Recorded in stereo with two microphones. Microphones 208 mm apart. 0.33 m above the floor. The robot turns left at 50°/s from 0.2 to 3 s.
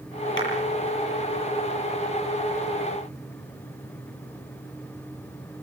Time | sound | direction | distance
0.4 | a clap | 70° left (ahead or behind) | 8.5 m